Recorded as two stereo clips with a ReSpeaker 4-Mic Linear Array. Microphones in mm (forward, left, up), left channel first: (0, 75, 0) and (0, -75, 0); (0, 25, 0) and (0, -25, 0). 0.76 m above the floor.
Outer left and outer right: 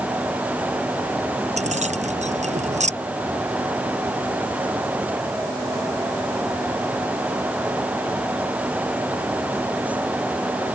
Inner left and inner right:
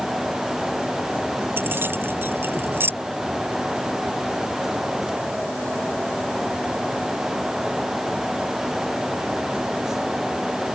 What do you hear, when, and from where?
1.6 s keys jangling: 50° right (ahead or behind)